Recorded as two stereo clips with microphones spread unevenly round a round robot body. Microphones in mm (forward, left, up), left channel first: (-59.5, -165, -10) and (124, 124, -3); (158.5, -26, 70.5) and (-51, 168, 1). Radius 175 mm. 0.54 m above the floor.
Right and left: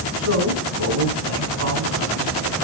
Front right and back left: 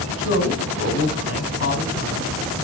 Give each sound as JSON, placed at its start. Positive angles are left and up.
{"t": 0.2, "sound": "a man speaking", "azimuth_deg": 5, "distance_m": 4.5}